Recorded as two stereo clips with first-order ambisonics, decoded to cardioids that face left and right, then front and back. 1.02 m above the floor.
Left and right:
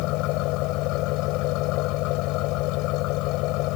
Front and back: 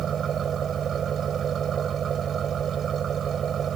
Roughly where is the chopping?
No chopping in this recording.